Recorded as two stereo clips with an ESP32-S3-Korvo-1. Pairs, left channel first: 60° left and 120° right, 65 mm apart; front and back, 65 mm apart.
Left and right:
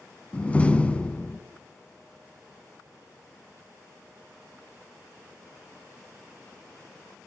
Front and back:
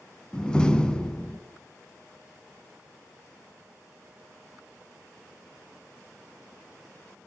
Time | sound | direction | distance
0.3 | a door slam | 50° left | 1.2 m